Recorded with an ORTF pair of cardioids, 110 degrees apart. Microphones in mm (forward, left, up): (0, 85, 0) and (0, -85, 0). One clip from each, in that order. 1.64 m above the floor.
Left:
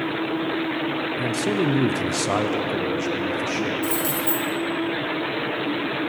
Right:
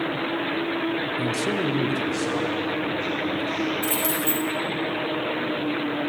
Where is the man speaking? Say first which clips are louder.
Left 2 dB; 5° right, 0.8 m; by 3.7 s 80° left, 2 m.